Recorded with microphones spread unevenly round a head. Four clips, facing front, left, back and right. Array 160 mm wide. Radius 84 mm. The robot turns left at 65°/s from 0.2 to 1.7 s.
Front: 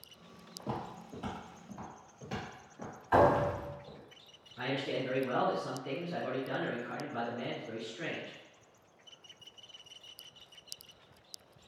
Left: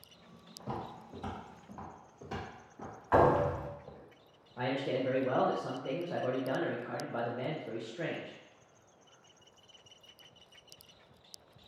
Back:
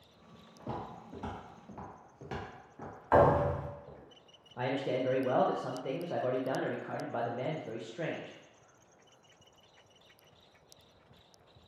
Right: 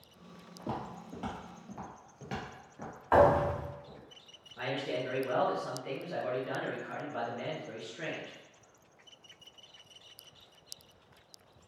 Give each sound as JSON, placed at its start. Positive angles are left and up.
{"t": 0.6, "sound": "footsteps", "azimuth_deg": -45, "distance_m": 1.8}
{"t": 3.1, "sound": "a thud", "azimuth_deg": -130, "distance_m": 1.9}
{"t": 4.6, "sound": "a man speaking", "azimuth_deg": 155, "distance_m": 0.6}